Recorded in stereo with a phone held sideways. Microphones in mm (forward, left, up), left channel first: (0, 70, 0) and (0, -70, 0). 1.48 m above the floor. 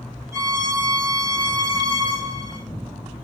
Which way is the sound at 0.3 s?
20° right (ahead or behind).